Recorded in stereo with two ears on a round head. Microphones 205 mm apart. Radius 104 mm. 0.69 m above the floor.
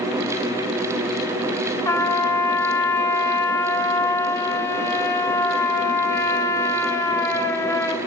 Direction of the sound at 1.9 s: 15° left (ahead or behind).